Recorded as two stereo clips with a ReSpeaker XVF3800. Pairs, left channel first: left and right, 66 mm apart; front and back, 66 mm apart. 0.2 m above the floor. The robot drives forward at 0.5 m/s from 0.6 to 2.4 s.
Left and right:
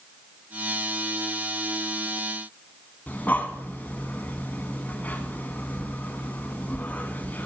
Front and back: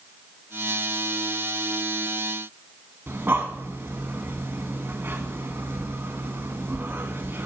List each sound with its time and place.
3.1 s breathing: 140° left, 1.8 m